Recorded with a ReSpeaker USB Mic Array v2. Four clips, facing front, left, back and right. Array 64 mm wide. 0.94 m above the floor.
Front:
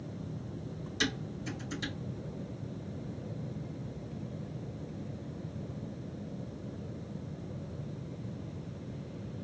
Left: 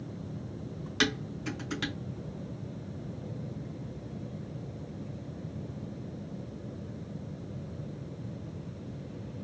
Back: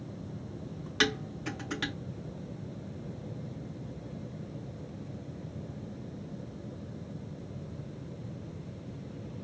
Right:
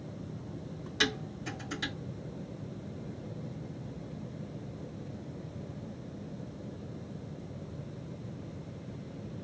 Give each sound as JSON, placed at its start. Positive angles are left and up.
{"t": 1.0, "sound": "dishes clattering", "azimuth_deg": 155, "distance_m": 2.0}